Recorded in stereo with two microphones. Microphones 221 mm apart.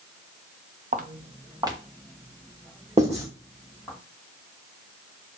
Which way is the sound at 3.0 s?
25° right (ahead or behind).